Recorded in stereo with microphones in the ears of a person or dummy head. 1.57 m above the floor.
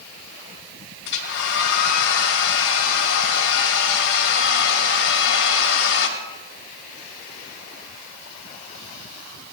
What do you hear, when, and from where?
1.1 s a hair dryer: 60° left (ahead or behind), 2.0 m